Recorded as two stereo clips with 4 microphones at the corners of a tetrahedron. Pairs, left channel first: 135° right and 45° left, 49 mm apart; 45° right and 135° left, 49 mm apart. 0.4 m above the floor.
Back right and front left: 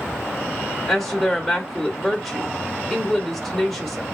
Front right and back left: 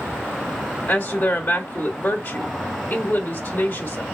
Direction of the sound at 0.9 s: 55° right.